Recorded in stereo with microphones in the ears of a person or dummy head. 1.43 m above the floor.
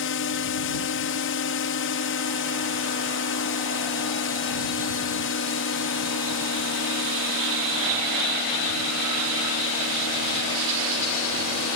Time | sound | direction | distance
0.0 | a drone | 55° left (ahead or behind) | ?